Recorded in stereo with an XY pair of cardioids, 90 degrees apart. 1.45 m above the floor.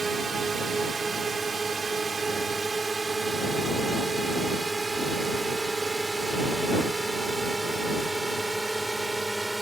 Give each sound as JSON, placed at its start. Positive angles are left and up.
{"t": 0.0, "sound": "a drone", "azimuth_deg": -40}